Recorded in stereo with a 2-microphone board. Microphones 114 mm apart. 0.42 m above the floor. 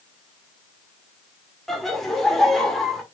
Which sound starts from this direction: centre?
Laughter, at 1.7 s.